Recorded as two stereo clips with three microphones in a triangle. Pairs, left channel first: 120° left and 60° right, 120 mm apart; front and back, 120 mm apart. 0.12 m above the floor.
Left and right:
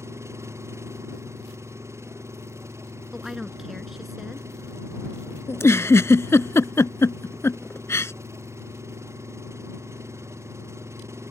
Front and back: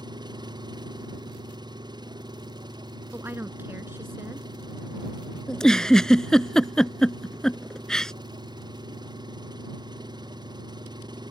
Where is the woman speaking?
145° right.